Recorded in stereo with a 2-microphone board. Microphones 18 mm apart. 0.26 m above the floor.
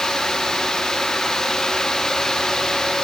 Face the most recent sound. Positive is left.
No sound to turn to.